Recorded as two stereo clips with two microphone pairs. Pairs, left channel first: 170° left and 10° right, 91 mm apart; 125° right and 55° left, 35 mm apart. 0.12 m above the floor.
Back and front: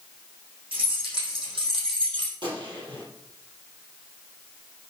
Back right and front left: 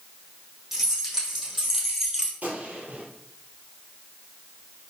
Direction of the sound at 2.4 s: 10° left.